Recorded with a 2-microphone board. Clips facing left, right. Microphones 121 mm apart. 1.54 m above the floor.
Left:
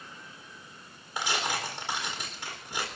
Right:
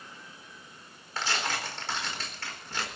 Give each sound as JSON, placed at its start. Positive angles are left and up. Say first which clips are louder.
{"t": 1.2, "sound": "tearing paper", "louder": "left 1 dB", "side_deg": 15, "distance_m": 4.0}